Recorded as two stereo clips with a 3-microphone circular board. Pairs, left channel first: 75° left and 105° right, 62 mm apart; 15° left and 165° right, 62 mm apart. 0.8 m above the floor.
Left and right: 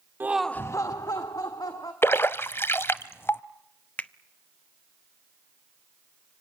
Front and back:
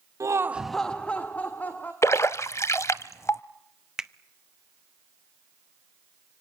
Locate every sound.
0.2 s laughter: 155° right, 0.6 m; by 1.9 s 75° left, 2.5 m
2.0 s a splash: 35° left, 0.8 m
4.0 s a finger snap: 120° left, 0.6 m